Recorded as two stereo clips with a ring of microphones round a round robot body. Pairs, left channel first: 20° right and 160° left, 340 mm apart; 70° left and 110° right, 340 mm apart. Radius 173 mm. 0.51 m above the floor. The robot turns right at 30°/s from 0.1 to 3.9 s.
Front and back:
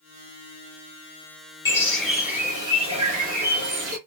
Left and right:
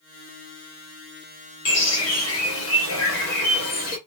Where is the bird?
55° left, 1.1 m; by 4.0 s 120° left, 1.1 m.